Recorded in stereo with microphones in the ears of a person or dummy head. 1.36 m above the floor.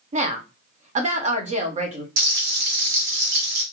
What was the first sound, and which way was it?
A woman speaking, 40° right (ahead or behind).